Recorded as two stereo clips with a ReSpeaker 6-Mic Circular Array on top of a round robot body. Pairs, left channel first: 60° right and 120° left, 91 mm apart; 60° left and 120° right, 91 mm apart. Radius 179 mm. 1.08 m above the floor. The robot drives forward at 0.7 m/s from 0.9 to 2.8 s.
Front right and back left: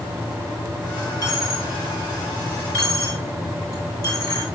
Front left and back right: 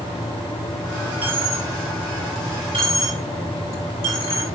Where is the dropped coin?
105° right, 6 m; by 4.5 s 115° right, 6.5 m.